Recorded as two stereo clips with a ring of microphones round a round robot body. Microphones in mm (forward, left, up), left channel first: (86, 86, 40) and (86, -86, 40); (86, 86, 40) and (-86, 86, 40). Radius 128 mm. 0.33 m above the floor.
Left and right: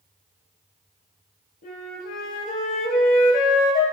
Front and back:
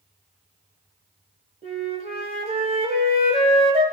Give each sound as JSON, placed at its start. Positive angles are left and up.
{"t": 1.6, "sound": "a flute", "azimuth_deg": 130, "distance_m": 1.7}